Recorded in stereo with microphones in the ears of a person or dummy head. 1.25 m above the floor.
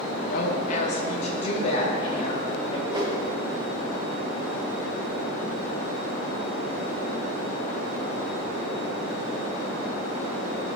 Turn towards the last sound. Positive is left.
turn(degrees=-20)  # may be behind; listen again after turning